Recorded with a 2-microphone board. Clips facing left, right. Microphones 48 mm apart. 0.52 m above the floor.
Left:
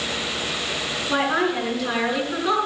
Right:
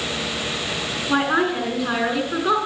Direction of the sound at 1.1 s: 10° right (ahead or behind).